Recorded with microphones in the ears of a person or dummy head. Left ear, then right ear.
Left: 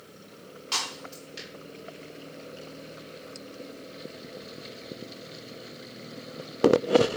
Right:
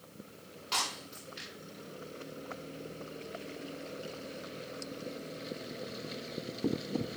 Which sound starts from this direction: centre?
Breaking glass, at 0.7 s.